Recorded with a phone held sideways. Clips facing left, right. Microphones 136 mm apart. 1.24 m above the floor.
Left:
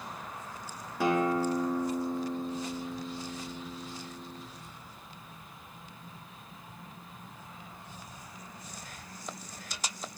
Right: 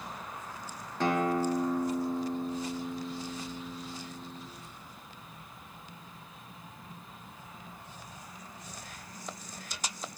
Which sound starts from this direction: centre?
A guitar, at 1.0 s.